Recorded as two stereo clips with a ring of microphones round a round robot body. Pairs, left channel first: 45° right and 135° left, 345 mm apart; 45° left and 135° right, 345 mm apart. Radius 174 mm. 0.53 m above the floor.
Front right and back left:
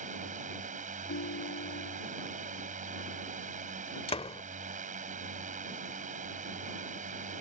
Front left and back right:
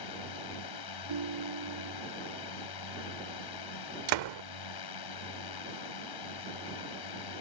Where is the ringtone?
105° right.